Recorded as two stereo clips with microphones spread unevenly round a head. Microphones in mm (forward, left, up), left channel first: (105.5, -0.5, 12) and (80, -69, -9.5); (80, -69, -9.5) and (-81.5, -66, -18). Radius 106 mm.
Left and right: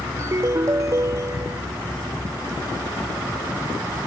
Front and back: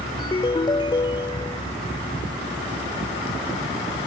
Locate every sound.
0.2 s a ringtone: 55° right